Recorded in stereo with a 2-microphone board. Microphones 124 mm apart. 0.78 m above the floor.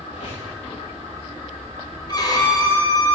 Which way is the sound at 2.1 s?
35° left (ahead or behind).